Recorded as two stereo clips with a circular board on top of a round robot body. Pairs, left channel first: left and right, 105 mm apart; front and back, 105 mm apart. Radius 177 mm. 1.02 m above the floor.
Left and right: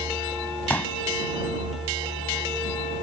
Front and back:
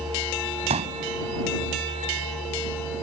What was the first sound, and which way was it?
A pop, 165° left.